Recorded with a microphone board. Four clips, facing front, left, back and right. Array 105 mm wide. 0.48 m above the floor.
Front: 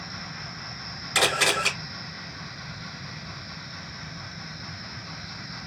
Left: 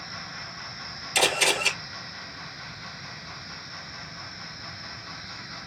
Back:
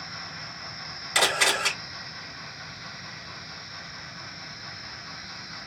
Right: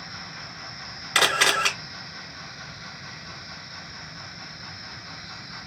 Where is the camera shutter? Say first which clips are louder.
Right 2 dB, front 1 dB; 90° right, 3 m.